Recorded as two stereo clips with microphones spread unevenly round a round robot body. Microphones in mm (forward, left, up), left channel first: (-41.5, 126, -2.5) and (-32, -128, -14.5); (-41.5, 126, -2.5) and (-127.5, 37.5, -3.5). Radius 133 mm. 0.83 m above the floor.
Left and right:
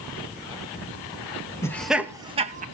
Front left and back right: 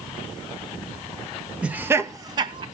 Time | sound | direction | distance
1.6 | laughter | 160° left | 0.9 m